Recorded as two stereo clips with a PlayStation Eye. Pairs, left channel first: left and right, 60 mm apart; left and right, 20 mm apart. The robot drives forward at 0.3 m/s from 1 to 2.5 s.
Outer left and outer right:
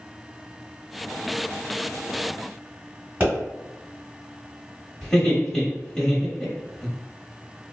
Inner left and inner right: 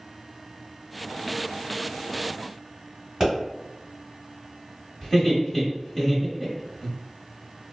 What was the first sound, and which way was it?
A pop, 35° right (ahead or behind).